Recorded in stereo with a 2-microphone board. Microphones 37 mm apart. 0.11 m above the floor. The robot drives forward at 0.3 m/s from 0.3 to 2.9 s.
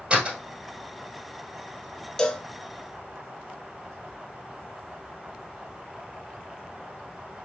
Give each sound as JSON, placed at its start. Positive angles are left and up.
{"t": 0.1, "sound": "a door slam", "side_deg": -30, "distance_m": 2.0}
{"t": 2.2, "sound": "a cowbell", "side_deg": 15, "distance_m": 0.5}